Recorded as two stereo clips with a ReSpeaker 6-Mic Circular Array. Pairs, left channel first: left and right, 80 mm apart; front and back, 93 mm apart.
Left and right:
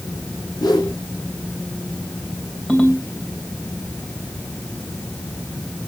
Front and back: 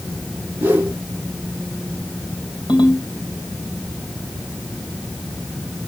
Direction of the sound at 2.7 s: 20° left.